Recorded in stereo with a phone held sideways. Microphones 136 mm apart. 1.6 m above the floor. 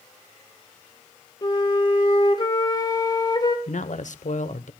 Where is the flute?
30° left (ahead or behind), 1.6 m.